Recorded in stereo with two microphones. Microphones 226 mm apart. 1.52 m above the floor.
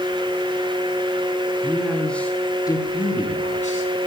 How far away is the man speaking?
About 3.5 m.